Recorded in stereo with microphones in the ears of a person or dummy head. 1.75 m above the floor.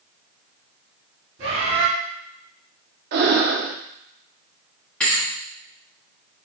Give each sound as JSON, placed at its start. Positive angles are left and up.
{"t": 1.4, "sound": "a bird", "side_deg": -50, "distance_m": 2.0}
{"t": 3.1, "sound": "breathing", "side_deg": -55, "distance_m": 0.6}
{"t": 5.0, "sound": "a thud", "side_deg": 5, "distance_m": 1.3}